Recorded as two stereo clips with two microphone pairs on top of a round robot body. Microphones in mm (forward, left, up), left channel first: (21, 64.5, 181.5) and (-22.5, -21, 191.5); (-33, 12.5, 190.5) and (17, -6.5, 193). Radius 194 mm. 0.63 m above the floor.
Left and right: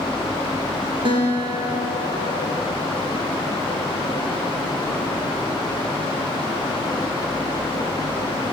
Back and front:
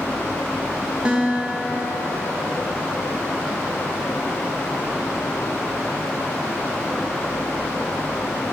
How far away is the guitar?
About 1.4 m.